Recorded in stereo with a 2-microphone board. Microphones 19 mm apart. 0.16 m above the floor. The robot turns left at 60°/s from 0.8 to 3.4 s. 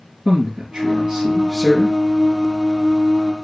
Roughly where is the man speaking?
Right.